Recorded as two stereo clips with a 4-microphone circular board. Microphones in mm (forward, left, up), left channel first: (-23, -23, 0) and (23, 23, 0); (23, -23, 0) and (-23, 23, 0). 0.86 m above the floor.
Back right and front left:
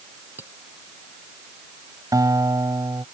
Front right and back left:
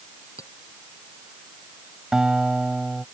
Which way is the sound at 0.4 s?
10° right.